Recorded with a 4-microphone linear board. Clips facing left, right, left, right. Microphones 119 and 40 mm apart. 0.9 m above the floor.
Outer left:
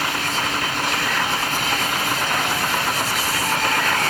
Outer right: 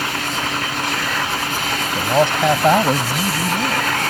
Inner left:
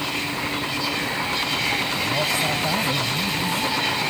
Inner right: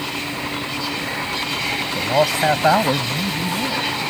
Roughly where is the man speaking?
Right.